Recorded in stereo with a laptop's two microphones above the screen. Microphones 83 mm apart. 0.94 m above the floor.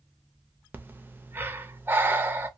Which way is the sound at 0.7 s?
25° right (ahead or behind).